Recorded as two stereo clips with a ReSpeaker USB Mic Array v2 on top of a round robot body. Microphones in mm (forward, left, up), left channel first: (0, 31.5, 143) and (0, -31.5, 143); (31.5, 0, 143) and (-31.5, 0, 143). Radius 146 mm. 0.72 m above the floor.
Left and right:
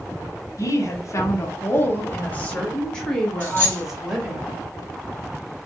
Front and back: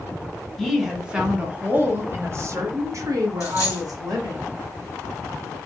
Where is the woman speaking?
90° left, 1.2 m; by 4.4 s 170° right, 1.7 m.